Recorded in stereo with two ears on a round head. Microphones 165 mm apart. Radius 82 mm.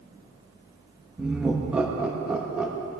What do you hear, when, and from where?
1.2 s laughter: 5° right (ahead or behind), 1.1 m